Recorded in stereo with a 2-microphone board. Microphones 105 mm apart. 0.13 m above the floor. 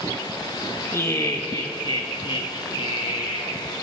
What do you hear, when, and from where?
0.9 s laughter: 30° left (ahead or behind), 1.5 m; by 3.5 s 65° left (ahead or behind), 3.5 m